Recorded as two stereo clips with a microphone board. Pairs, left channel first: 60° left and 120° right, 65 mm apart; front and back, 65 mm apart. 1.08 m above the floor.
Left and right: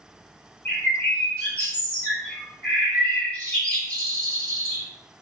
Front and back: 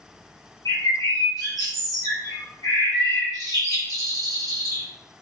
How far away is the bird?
About 1.2 m.